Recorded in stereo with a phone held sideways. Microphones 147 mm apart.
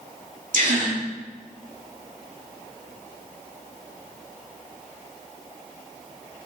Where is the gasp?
65° right (ahead or behind), 2 m.